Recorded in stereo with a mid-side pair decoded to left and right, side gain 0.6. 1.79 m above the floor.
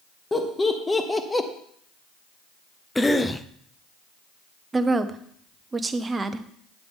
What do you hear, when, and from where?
0.3 s laughter: 15° left, 1.7 m; by 1.5 s 10° left, 1.1 m
3.0 s a cough: 10° left, 0.7 m
4.7 s a woman speaking: 20° right, 0.9 m